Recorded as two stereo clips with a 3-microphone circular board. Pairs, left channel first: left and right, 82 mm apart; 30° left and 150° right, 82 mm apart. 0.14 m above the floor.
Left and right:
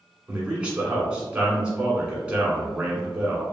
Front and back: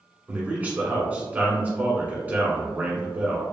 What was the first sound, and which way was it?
A man speaking, 140° right.